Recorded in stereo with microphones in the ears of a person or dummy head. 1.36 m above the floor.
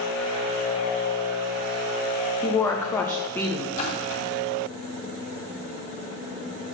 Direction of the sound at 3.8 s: 45° left (ahead or behind).